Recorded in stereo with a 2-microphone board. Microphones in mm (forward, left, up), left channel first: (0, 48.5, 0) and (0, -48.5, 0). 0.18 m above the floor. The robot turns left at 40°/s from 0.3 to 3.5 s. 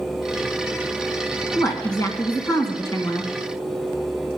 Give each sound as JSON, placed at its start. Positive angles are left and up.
{"t": 1.6, "sound": "a woman speaking", "azimuth_deg": 105, "distance_m": 2.0}